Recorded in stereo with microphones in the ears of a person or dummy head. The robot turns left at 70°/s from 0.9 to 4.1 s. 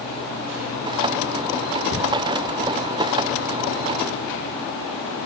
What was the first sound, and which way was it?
Ticking, 45° left (ahead or behind).